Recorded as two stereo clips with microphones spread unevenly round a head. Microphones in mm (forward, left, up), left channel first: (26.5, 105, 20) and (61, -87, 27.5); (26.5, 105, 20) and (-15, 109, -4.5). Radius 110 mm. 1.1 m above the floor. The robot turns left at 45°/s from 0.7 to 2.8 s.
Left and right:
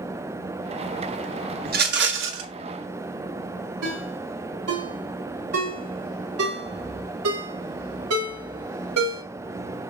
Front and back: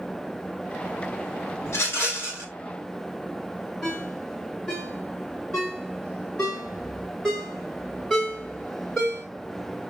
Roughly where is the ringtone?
Right.